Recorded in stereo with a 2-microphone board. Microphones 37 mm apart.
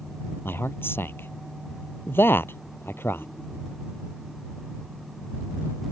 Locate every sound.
0.5 s a man speaking: 80° left